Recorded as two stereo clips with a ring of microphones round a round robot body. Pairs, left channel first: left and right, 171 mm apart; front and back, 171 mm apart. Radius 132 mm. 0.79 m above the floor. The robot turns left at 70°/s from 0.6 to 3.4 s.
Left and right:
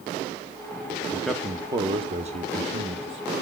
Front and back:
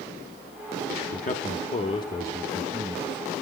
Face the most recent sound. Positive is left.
turn(degrees=-150)